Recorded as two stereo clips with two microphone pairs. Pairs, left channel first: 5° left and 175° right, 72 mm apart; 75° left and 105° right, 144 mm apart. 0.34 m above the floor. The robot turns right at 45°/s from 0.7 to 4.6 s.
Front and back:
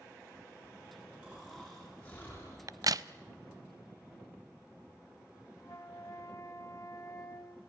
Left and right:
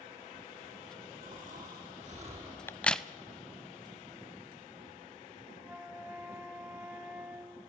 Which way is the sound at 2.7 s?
150° left.